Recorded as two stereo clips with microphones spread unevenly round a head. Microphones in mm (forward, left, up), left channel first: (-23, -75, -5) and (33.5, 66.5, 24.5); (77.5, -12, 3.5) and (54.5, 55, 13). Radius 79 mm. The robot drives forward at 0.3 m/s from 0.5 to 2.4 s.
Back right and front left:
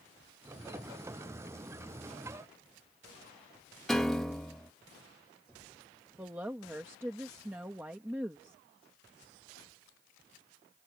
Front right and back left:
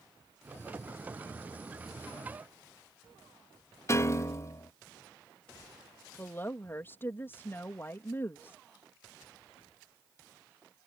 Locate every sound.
3.9 s a piano: 20° right
6.2 s a woman speaking: 10° right